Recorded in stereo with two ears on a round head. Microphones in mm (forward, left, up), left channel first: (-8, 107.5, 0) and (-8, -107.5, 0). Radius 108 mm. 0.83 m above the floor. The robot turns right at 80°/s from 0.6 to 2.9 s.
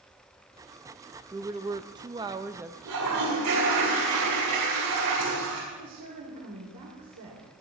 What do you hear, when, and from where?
1.3 s a woman speaking: 10° right (ahead or behind), 0.5 m; by 2.8 s 5° right (ahead or behind), 0.5 m
2.9 s a toilet flushing: 85° right, 7 m
5.7 s a woman speaking: 80° right, 2.5 m